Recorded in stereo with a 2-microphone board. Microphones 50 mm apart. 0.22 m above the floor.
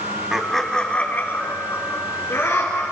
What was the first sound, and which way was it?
Laughter, 10° right (ahead or behind).